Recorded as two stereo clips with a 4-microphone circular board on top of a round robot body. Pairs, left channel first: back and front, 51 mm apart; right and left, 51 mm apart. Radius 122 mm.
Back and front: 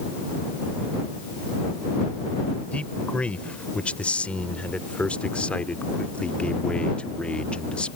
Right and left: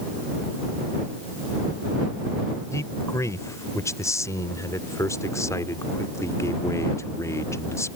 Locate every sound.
2.7 s a man speaking: 110° right